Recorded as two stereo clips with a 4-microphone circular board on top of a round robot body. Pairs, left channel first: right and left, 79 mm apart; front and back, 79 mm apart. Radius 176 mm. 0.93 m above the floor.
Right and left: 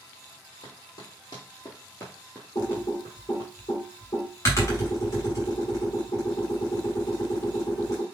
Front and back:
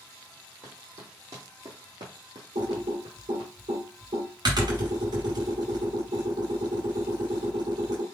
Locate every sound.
0.6 s running footsteps: 115° right, 1.4 m; by 3.5 s 130° left, 1.1 m
2.5 s typing on a keyboard: 145° right, 0.9 m